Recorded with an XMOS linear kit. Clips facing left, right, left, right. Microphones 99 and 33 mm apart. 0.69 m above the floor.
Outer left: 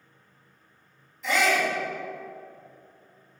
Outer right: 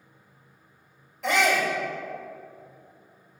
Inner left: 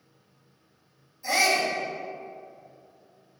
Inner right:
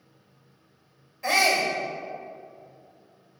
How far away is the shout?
About 3 m.